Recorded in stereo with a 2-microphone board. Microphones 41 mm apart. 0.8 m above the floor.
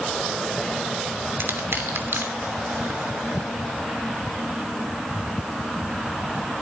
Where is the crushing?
70° right (ahead or behind), 2.5 m.